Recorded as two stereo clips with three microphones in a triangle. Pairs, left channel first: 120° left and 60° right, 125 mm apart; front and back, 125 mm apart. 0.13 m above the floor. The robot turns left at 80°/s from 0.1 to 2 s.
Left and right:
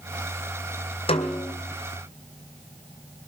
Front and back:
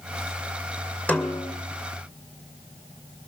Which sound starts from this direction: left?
A snare drum, at 1.1 s.